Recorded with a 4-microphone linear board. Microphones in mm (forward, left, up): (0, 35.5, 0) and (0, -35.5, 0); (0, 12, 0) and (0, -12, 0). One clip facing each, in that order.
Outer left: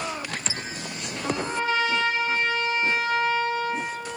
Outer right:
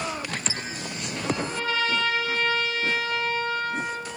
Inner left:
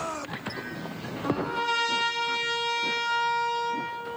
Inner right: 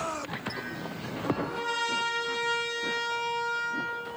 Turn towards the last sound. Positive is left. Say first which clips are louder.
# outer left 2 dB, inner left 3 dB
turn(degrees=30)  # may be behind; listen again after turning